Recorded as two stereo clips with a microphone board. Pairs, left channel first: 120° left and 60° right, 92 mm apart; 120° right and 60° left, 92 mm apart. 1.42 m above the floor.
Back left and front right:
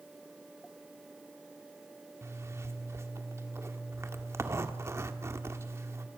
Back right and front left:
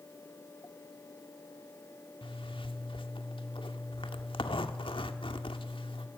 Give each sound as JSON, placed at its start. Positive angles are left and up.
{"t": 2.2, "sound": "a zipper", "azimuth_deg": -115, "distance_m": 1.8}